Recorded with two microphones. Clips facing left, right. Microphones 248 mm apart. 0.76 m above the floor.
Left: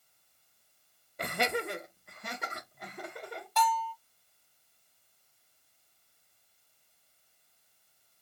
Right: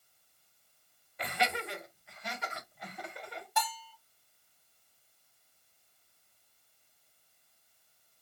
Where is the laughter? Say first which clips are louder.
Left 4 dB; 50° left (ahead or behind), 0.5 m.